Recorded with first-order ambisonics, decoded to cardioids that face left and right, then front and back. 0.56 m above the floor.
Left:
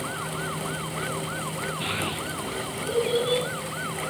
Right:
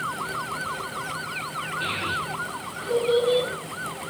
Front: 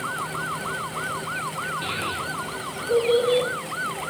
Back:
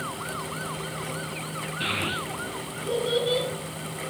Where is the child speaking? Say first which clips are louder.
Right 3 dB, even; 160° left, 4 m.